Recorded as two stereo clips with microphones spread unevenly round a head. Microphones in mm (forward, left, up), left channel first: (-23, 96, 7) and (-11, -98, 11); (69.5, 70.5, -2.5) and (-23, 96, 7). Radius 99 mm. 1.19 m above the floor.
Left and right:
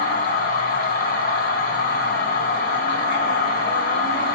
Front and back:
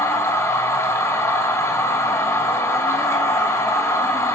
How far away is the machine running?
About 5.5 m.